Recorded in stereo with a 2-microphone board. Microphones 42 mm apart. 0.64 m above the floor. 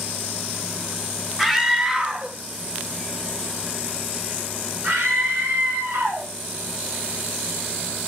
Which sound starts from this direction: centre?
A scream, at 1.4 s.